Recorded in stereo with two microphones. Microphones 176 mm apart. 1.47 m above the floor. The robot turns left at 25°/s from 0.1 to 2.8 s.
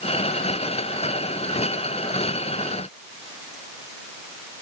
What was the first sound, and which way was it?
Only background noise.